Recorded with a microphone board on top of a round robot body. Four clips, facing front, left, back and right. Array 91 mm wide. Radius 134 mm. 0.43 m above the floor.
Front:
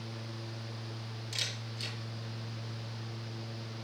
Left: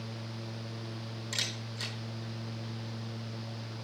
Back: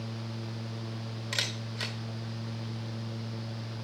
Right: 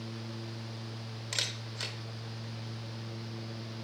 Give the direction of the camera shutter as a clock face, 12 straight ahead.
5 o'clock.